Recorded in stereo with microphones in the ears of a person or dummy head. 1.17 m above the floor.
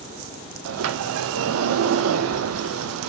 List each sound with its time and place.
0.7 s a sliding door: 75° right (ahead or behind), 0.5 m